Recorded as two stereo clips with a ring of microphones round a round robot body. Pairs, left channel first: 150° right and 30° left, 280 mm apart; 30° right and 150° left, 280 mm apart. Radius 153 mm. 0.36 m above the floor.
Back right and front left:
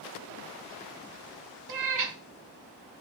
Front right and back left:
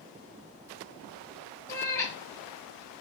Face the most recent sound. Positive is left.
turn(degrees=50)